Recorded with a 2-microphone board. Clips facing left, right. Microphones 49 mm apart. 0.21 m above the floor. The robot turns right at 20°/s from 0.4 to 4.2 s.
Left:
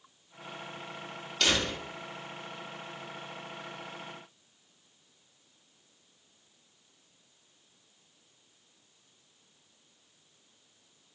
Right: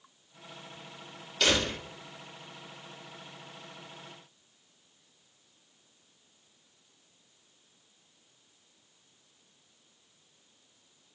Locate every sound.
1.4 s a door slam: 5° right (ahead or behind), 5.5 m; by 1.8 s 10° right (ahead or behind), 5.5 m